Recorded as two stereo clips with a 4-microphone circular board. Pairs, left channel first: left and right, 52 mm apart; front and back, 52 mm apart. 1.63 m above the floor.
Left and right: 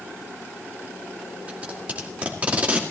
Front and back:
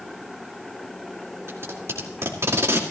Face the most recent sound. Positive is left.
turn(degrees=-150)